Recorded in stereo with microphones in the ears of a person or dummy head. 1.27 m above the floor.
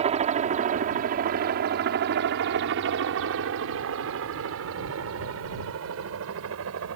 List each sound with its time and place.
0.0 s a helicopter: 35° right (ahead or behind); by 7.0 s 75° right (ahead or behind)